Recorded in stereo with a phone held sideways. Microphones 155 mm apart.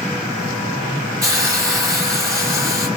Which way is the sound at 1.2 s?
20° right (ahead or behind).